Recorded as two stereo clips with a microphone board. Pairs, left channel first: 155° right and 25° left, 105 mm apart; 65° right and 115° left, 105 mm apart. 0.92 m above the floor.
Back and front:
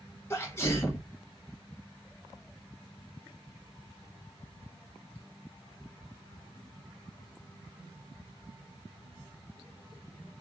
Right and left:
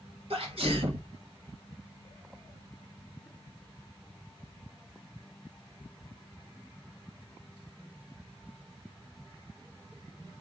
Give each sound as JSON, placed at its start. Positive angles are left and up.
{"t": 0.3, "sound": "a sneeze", "azimuth_deg": 135, "distance_m": 1.1}